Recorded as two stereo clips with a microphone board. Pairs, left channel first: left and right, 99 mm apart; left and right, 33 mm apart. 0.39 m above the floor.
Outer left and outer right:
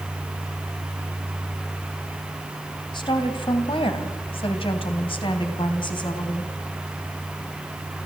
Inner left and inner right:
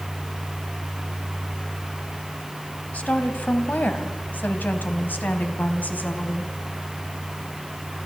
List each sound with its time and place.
2.9 s a woman speaking: 50° left (ahead or behind), 2.5 m